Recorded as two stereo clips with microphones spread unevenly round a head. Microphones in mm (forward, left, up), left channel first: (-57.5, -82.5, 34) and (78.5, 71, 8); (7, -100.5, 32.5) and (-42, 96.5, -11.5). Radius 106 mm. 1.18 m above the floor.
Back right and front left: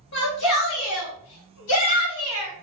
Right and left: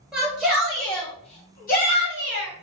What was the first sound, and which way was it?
A shout, 165° right.